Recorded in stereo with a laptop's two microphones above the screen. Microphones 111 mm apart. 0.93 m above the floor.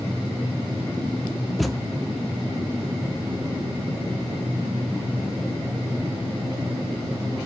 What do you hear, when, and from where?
1.6 s a thud: centre (ahead or behind), 0.6 m